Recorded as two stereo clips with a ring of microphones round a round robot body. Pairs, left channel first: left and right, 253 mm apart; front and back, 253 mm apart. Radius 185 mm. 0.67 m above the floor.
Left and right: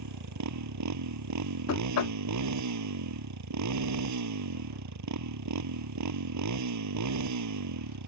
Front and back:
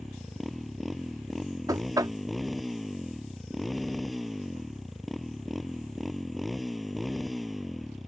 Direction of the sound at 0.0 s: 90° right.